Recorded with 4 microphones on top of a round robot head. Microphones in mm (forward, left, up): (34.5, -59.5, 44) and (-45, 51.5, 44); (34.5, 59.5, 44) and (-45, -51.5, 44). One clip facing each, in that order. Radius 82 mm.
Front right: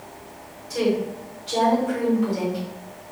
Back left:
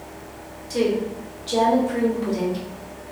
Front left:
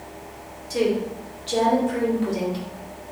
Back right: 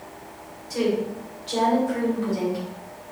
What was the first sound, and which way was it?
A woman speaking, 90° left.